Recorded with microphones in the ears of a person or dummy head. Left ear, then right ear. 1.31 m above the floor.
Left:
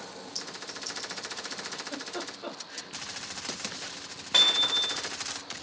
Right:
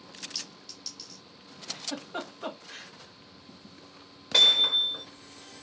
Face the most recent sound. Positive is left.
turn(degrees=35)  # may be behind; listen again after turning